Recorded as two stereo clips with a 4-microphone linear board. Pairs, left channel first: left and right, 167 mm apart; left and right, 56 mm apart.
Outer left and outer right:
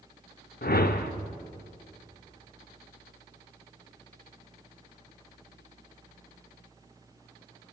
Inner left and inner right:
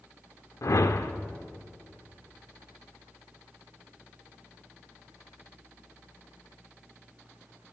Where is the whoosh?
65° left (ahead or behind), 0.5 m.